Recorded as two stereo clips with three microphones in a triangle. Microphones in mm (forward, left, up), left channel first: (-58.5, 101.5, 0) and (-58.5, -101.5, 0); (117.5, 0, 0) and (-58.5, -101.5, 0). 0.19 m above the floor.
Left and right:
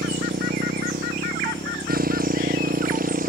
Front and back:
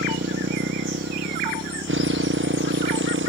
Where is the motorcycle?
130° right; by 3.3 s 135° right.